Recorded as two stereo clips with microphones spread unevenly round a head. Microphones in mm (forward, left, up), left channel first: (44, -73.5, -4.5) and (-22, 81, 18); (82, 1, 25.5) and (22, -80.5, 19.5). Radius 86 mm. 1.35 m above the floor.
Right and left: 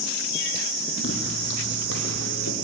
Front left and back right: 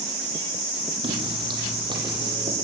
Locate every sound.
1.0 s footsteps: 95° right, 3.5 m; by 2.5 s 85° right, 4 m